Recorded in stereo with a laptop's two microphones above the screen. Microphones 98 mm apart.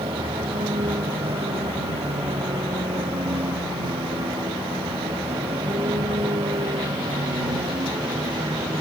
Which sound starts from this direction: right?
A vehicle, at 0.0 s.